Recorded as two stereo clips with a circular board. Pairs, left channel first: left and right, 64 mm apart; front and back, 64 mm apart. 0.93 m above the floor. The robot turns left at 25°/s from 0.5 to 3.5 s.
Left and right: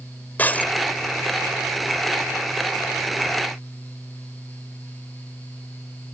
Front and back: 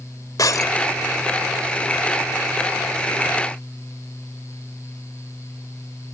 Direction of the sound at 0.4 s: 30° left.